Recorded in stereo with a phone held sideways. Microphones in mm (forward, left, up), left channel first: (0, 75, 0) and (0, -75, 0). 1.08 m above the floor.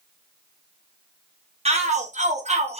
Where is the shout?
45° right (ahead or behind), 1.2 m; by 2.8 s 40° right (ahead or behind), 1.0 m.